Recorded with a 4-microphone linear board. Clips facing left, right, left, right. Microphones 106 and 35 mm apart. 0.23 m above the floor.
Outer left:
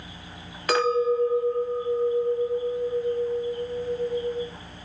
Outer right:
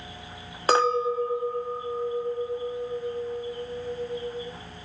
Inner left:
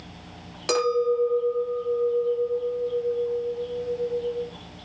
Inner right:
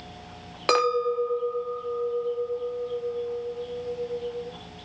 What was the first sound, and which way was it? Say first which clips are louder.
A clink: outer left 1 dB, even; 30° right (ahead or behind).